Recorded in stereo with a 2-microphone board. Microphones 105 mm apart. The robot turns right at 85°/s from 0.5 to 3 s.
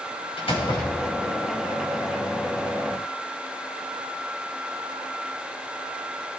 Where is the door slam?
110° left, 3 m; by 1.4 s 175° right, 3 m.